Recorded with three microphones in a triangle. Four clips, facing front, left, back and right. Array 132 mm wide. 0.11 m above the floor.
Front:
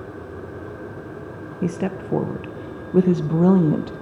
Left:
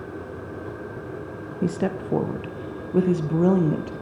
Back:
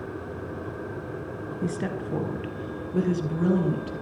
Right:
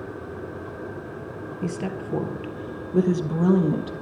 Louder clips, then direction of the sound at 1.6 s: Left 5 dB, front 5 dB; 50° left.